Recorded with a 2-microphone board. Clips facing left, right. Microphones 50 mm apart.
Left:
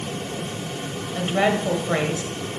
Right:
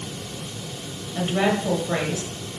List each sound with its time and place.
1.1 s a woman speaking: 20° left (ahead or behind), 1.2 m